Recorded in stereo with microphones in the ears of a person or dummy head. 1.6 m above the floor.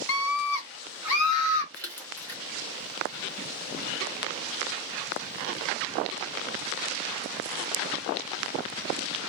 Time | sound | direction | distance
0.1 | a scream | 75° left (ahead or behind) | 0.6 m
1.7 | a splash | 10° left (ahead or behind) | 0.9 m